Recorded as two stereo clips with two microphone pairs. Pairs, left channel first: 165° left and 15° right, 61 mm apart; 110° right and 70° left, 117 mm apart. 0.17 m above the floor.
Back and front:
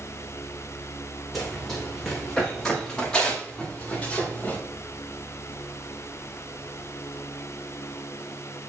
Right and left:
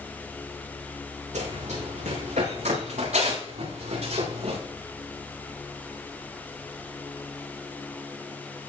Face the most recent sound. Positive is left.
turn(degrees=95)